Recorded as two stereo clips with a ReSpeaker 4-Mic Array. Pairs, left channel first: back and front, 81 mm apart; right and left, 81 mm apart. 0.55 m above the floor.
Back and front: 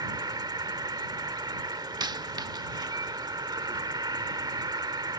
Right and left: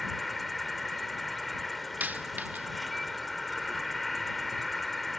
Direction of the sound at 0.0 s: Straight ahead.